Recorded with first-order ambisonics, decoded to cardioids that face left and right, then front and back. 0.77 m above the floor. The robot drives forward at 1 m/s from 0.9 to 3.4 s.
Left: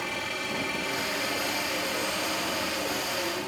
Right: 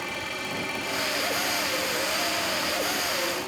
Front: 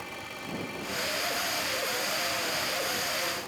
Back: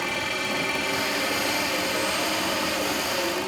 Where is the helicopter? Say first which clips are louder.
Even, back 12 dB; straight behind.